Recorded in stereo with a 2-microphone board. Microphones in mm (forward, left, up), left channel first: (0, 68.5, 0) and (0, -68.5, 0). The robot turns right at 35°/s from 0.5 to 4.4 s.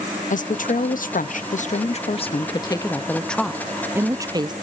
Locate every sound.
0.3 s a woman speaking: 75° left, 0.5 m; by 4.5 s 150° right, 0.5 m